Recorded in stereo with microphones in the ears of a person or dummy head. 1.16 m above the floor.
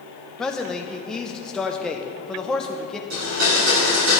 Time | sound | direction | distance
0.4 | a man speaking | centre (ahead or behind) | 0.6 m
3.1 | a blender | 80° right | 2.5 m